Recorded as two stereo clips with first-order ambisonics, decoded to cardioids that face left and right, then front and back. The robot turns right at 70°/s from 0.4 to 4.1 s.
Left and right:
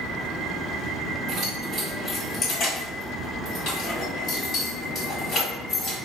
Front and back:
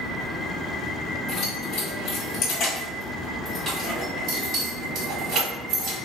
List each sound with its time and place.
1.3 s keys jangling: 55° right, 2.0 m; by 6.0 s 145° left, 2.0 m